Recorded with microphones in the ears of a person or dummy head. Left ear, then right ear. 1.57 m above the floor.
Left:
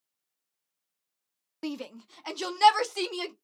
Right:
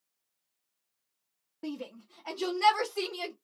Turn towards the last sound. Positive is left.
turn(degrees=70)  # may be behind; listen again after turning